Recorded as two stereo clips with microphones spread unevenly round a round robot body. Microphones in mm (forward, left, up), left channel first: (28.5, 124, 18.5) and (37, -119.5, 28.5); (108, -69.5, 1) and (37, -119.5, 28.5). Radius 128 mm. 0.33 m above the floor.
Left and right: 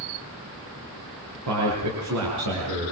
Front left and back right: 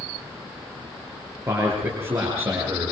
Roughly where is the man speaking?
Right.